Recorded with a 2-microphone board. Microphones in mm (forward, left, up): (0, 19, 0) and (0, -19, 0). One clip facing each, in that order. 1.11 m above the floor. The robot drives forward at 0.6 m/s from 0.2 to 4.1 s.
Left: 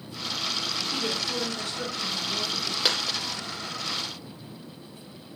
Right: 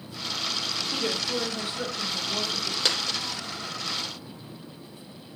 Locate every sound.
0.9 s a woman speaking: 20° right (ahead or behind), 3.5 m; by 2.8 s 15° right (ahead or behind), 4.5 m
2.9 s a dropped coin: 5° left (ahead or behind), 2 m